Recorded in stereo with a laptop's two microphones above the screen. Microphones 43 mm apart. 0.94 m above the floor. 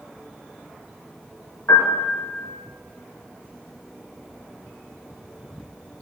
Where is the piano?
65° left (ahead or behind), 8.5 m.